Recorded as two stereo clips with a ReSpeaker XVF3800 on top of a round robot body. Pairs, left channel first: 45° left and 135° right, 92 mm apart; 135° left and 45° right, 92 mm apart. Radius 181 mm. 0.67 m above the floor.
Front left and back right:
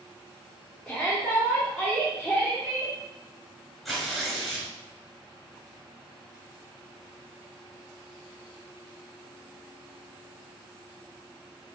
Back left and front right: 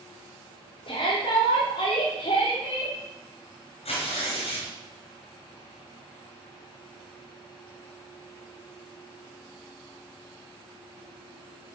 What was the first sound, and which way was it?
A shout, 130° left.